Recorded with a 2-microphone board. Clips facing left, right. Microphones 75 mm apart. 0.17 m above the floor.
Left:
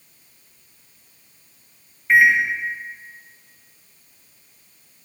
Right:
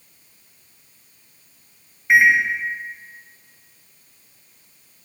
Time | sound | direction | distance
2.1 | a microwave | 15° right (ahead or behind) | 0.9 m